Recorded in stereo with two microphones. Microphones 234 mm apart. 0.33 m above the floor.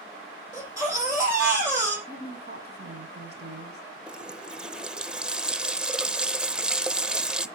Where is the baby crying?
15° right (ahead or behind), 5.5 m.